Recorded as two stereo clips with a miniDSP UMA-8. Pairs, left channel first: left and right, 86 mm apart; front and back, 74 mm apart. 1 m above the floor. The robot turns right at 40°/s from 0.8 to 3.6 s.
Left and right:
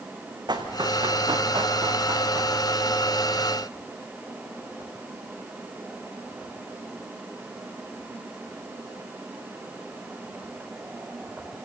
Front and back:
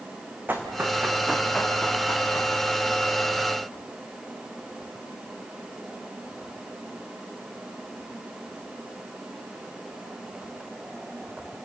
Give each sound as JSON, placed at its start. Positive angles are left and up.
{"t": 0.5, "sound": "running footsteps", "azimuth_deg": -115, "distance_m": 3.0}